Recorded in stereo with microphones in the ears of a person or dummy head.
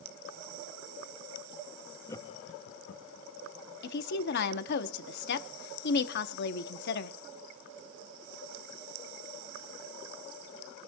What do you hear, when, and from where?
2.1 s laughter: 15° left (ahead or behind), 0.7 m; by 3.3 s 80° left, 1.2 m
3.8 s a woman speaking: 60° left (ahead or behind), 0.8 m